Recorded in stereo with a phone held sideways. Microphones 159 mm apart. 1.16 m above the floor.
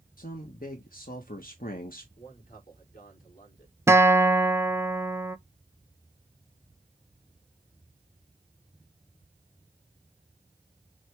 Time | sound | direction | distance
0.2 | a man speaking | 65° left (ahead or behind) | 1.3 m
2.2 | a man speaking | 60° left (ahead or behind) | 4 m
3.9 | a guitar | 15° right (ahead or behind) | 0.6 m